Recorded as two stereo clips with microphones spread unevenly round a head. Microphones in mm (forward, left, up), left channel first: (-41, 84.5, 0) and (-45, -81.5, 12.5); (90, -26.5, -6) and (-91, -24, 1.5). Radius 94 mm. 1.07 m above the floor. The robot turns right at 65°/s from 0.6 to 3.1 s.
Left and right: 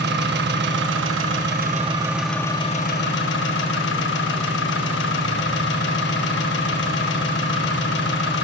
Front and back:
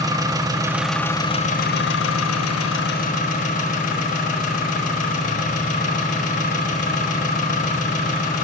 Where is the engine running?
110° right, 1.1 m; by 8.4 s 50° left, 1.1 m.